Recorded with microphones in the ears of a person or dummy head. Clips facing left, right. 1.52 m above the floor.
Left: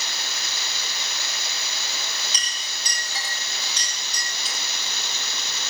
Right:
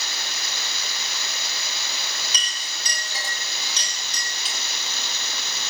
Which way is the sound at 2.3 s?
70° right (ahead or behind).